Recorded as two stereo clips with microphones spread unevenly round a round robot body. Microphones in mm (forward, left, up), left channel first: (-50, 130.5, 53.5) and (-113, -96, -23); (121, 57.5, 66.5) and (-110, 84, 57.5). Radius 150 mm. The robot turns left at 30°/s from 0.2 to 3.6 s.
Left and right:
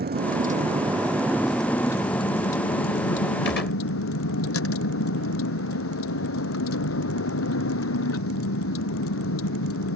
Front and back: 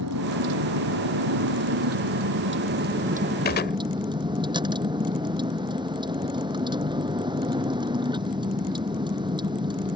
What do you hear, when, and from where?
0.0 s a vehicle: 155° right; by 10.0 s 100° left
3.5 s a gunshot: 20° left; by 3.8 s 15° left